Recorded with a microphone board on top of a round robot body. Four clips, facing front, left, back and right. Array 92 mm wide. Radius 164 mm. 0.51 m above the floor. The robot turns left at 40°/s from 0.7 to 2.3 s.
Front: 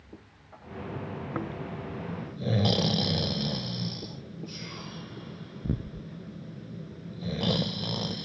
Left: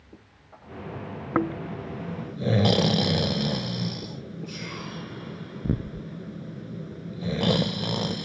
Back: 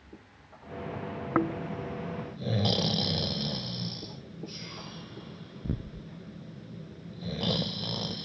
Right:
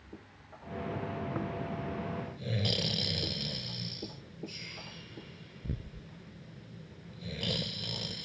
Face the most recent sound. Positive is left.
turn(degrees=90)